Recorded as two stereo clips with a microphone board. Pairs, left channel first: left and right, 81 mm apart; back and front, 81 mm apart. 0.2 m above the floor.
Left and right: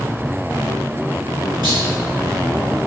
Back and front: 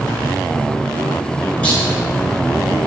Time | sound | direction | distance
1.6 | a clunk | 105° right | 1.0 m